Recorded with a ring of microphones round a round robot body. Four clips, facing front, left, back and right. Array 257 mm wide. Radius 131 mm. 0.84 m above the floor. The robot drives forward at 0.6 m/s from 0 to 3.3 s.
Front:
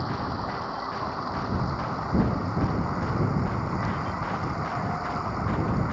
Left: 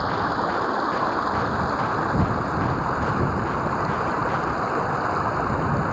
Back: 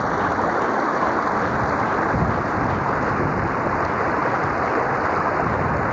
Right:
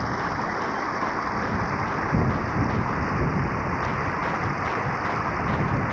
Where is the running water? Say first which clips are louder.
Left 4 dB, back 10 dB; 165° left.